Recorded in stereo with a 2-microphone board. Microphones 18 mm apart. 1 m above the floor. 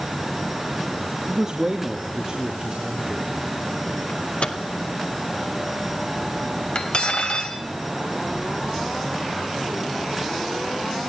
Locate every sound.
1.3 s a man speaking: 35° right (ahead or behind), 1.9 m; by 3.3 s 40° right (ahead or behind), 4 m
4.1 s a microwave: 80° left, 1.9 m
6.8 s cutlery clinking: 55° left (ahead or behind), 3 m